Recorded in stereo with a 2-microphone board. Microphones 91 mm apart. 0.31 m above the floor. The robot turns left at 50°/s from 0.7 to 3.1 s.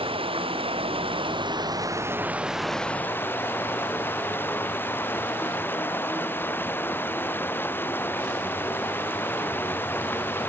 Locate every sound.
0.0 s running water: 85° right; by 10.5 s 155° left